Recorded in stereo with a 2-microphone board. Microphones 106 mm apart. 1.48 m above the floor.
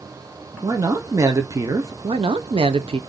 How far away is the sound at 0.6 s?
About 0.7 m.